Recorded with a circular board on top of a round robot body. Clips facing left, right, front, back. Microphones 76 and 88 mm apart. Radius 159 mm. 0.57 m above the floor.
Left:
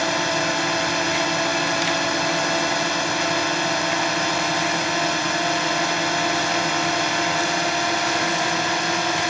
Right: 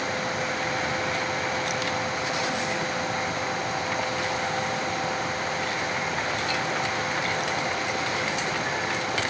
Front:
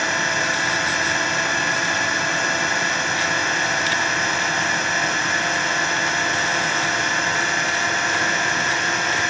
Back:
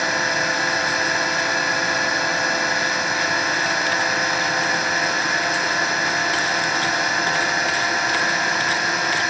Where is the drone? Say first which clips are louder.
Left 6 dB, even; 95° left.